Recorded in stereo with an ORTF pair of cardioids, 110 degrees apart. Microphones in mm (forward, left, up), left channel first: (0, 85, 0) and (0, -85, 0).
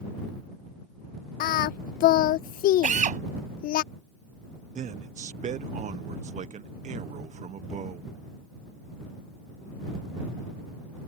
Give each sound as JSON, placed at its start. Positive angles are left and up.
{"t": 1.4, "sound": "singing", "azimuth_deg": 60}
{"t": 2.8, "sound": "a drill", "azimuth_deg": -45}
{"t": 4.8, "sound": "a man speaking", "azimuth_deg": -45}